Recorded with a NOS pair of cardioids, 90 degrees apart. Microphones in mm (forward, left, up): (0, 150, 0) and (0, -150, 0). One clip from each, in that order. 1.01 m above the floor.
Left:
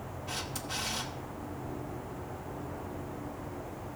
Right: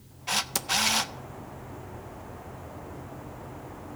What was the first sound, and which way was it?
A camera shutter, 60° right.